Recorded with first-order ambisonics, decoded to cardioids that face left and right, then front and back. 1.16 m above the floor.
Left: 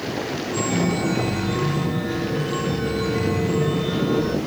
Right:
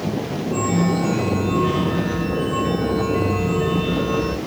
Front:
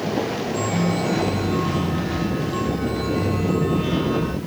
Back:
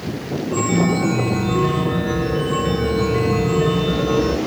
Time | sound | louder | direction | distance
0.5 | a chime | right 3 dB, back 8 dB | 170° right | 0.6 m